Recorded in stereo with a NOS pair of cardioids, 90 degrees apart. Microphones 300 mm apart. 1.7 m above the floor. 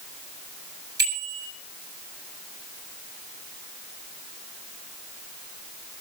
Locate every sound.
1.0 s a bicycle bell: 30° right, 7.5 m